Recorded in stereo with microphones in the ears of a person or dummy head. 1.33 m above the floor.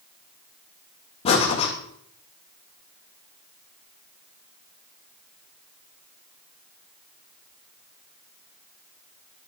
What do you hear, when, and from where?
1.2 s breathing: 30° left (ahead or behind), 1.9 m